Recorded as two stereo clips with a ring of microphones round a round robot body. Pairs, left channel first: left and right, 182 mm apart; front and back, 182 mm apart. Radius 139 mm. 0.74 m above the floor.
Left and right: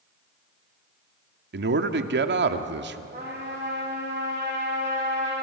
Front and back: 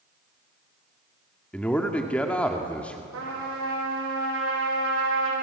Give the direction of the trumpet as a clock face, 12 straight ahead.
5 o'clock.